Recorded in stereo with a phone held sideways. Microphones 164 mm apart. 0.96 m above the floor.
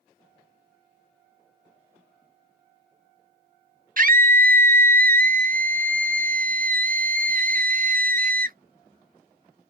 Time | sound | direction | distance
4.0 | a scream | 60° right (ahead or behind) | 0.7 m